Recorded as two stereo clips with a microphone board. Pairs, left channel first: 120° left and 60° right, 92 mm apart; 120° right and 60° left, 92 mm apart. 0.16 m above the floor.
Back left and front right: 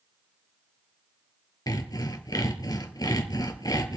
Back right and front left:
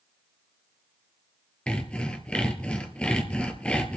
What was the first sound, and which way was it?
Sawing, 165° left.